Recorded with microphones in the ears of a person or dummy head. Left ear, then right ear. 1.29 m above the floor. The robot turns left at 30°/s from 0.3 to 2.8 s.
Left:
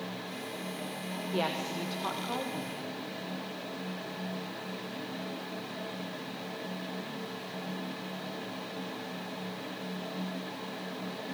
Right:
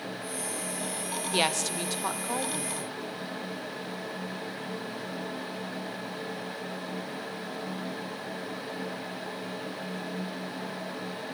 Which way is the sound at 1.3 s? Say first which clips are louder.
Right 5 dB; 75° right.